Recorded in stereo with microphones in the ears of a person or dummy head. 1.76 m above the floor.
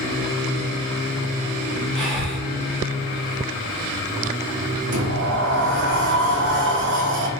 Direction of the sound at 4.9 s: 60° right (ahead or behind).